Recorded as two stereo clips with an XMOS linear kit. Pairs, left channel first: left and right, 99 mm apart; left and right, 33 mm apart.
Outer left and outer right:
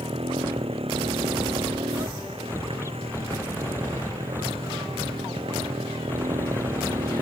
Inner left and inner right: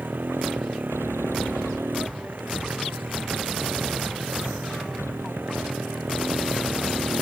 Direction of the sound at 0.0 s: 75° right (ahead or behind).